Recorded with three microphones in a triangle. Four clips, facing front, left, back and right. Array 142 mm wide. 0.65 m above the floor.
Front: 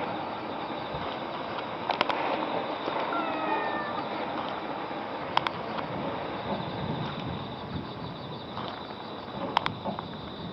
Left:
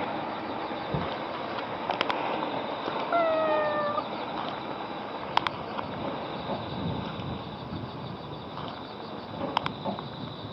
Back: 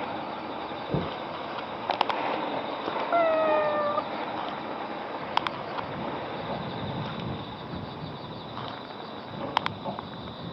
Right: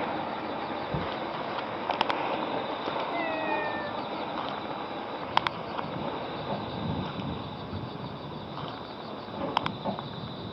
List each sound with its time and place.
0.9 s knocking: straight behind
3.1 s a cat meowing: 155° left